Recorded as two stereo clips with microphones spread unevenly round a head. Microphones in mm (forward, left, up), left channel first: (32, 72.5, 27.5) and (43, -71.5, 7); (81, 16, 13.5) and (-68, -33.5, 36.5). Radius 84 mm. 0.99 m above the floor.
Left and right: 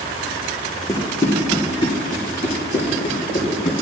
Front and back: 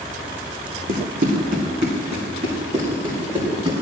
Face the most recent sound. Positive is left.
turn(degrees=140)